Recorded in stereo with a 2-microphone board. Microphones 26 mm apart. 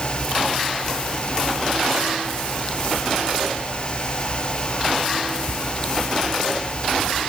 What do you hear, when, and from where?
Only background noise.